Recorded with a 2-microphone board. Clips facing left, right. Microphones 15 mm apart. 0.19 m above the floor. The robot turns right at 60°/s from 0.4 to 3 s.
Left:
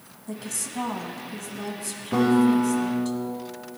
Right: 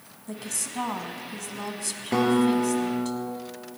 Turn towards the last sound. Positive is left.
turn(degrees=-30)